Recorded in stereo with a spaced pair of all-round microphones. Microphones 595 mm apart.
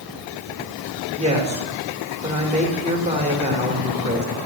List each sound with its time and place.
1.2 s a woman speaking: 10° right (ahead or behind), 3.5 m